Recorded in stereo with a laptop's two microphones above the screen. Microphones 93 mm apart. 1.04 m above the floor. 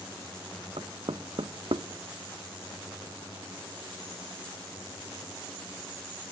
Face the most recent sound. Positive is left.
turn(degrees=-65)  # may be behind; listen again after turning